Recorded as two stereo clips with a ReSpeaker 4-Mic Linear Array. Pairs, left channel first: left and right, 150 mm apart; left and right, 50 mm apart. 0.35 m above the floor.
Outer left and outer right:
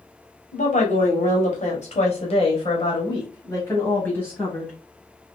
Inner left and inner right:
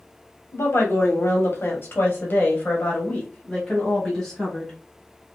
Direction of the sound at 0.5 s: 60° left (ahead or behind).